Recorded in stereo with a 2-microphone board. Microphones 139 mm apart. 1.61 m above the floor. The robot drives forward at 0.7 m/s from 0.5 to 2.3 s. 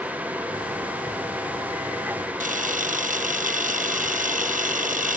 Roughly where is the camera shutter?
Right.